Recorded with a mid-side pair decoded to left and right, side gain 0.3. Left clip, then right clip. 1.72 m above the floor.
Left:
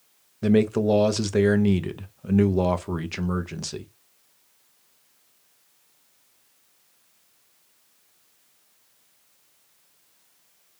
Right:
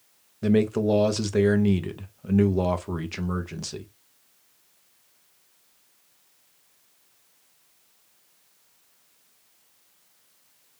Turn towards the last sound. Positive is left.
turn(degrees=25)